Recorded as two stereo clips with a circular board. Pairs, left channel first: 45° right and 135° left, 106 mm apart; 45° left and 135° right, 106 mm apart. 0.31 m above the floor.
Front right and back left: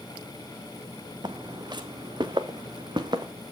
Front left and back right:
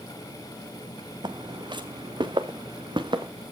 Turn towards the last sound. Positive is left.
turn(degrees=180)